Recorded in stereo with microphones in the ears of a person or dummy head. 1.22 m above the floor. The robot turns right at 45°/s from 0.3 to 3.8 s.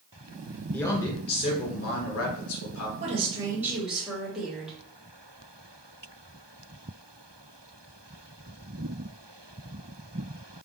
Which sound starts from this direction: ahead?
A man speaking, at 0.7 s.